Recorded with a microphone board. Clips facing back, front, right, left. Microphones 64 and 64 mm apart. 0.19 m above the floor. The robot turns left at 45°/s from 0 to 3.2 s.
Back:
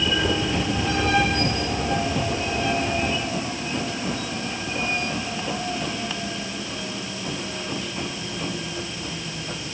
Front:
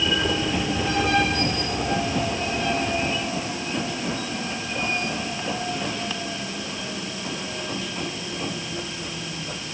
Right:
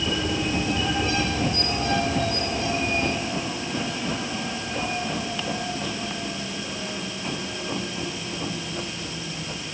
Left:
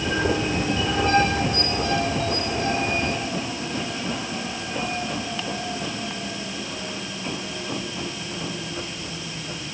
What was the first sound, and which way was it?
Only background noise.